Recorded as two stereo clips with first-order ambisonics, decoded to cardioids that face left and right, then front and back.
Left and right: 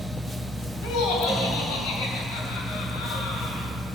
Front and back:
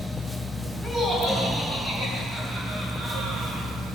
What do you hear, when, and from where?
0.8 s laughter: 90° left, 3.5 m; by 3.7 s 115° left, 6 m